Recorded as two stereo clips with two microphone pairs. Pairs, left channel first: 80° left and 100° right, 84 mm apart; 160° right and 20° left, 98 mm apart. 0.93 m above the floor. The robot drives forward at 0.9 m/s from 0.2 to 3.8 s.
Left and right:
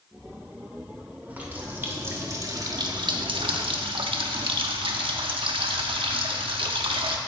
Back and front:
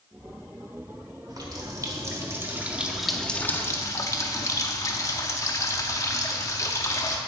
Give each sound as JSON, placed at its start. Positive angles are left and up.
{"t": 1.3, "sound": "a running tap", "azimuth_deg": -30, "distance_m": 2.0}